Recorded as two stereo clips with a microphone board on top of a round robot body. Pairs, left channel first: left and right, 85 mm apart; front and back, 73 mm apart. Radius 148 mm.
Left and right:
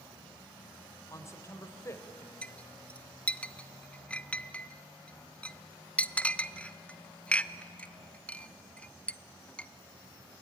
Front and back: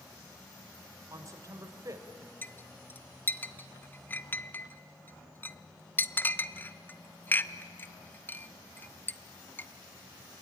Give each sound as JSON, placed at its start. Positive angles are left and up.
{"t": 1.1, "sound": "a man speaking", "azimuth_deg": 145, "distance_m": 2.0}
{"t": 2.4, "sound": "a clink", "azimuth_deg": 30, "distance_m": 0.8}